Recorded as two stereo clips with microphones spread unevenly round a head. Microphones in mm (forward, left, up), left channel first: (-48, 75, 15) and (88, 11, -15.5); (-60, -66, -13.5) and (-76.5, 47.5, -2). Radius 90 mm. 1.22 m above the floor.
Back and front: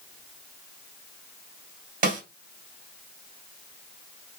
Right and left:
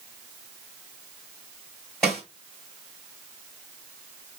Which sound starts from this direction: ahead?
A snare drum, at 2.0 s.